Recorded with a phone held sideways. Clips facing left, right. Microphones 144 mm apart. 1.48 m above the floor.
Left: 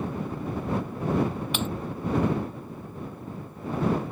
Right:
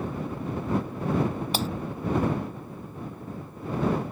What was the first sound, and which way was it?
Breaking glass, 35° right (ahead or behind).